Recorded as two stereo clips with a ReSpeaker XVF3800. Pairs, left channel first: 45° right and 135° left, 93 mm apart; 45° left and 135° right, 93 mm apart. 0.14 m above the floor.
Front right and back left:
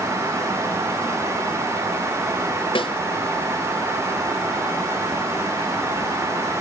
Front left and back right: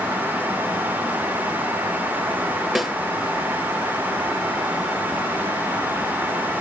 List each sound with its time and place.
2.8 s a snare drum: 45° right, 1.1 m